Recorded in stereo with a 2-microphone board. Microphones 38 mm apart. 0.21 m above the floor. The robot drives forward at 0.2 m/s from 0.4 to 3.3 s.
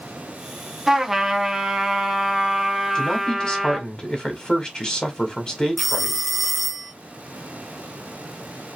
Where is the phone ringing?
5° left (ahead or behind), 0.6 m.